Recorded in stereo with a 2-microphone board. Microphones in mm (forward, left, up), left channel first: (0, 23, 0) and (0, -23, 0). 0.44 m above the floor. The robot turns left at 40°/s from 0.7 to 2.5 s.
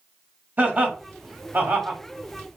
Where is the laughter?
35° right (ahead or behind), 1.1 m.